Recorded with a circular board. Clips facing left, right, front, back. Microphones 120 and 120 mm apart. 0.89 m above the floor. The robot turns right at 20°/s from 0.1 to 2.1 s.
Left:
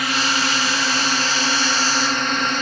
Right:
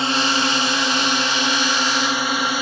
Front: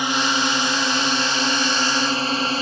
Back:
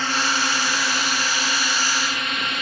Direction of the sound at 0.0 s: 60° right.